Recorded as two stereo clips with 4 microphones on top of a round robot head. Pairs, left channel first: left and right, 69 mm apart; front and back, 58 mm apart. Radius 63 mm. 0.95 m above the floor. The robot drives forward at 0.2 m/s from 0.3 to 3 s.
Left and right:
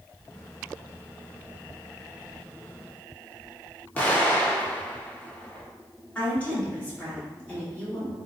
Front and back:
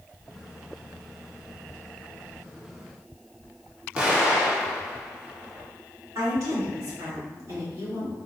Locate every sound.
4.0 s an explosion: 125° left, 1.0 m
6.2 s a woman speaking: 160° left, 2.0 m